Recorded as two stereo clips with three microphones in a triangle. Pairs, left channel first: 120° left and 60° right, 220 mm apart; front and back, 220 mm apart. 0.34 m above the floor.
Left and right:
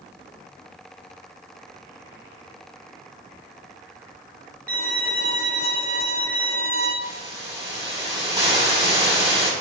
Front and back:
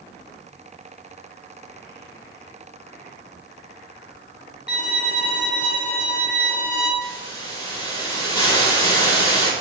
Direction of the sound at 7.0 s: 20° right.